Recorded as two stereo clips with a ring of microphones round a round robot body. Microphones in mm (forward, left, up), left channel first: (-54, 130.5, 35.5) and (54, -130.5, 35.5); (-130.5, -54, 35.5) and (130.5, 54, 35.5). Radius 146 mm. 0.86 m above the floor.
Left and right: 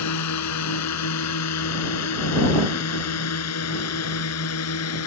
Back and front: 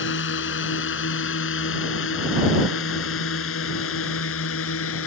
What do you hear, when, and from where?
0.0 s a drone: 150° left; by 5.1 s 155° left